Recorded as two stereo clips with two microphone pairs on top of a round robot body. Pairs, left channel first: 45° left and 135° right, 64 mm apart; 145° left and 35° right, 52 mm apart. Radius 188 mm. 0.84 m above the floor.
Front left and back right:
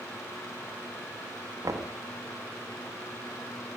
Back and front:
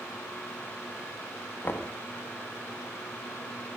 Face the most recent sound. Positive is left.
turn(degrees=-165)